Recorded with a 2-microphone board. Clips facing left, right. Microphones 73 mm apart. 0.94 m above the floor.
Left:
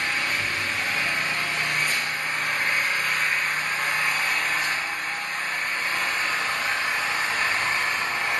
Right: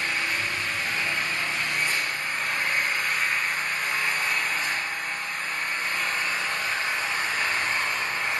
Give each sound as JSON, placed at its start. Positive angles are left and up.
{"t": 0.0, "sound": "an engine running", "side_deg": 60, "distance_m": 0.9}